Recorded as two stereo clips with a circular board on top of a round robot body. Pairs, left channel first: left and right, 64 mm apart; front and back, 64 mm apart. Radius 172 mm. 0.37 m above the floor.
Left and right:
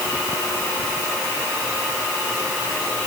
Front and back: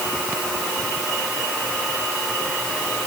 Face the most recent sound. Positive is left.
No sound to turn to.